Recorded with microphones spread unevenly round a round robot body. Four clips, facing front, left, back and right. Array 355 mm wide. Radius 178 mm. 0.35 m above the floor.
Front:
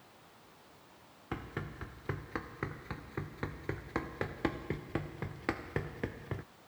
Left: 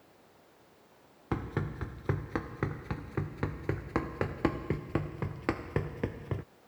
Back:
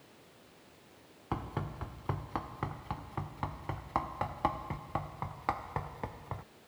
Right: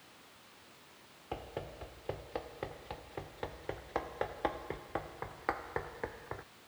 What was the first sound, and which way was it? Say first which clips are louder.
Running footsteps: left 7 dB, back 4 dB; 110° left.